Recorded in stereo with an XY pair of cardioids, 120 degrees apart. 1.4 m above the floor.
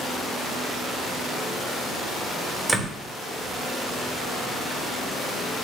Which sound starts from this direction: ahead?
A door slam, at 2.7 s.